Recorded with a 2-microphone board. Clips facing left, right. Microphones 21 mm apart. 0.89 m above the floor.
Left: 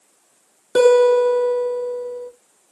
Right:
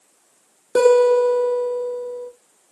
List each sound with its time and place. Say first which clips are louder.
0.8 s a guitar: left 1 dB; 40° left (ahead or behind), 0.7 m